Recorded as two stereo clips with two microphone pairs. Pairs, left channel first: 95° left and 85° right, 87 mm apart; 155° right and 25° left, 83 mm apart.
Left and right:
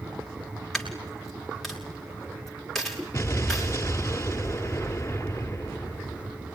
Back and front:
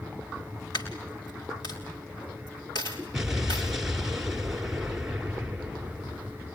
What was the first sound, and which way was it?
A dropped coin, 175° right.